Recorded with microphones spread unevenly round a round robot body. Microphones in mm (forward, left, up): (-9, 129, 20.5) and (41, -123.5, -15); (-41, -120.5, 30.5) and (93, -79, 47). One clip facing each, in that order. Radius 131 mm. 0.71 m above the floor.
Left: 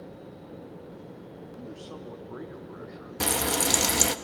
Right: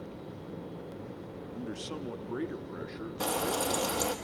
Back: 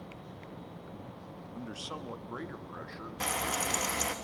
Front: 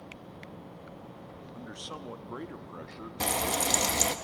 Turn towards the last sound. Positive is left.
turn(degrees=70)